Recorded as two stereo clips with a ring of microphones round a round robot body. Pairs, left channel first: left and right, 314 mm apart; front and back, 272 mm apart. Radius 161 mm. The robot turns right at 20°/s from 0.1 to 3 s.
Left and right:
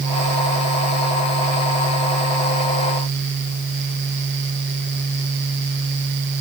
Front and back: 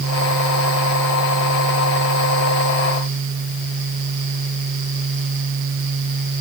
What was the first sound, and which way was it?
Only background noise.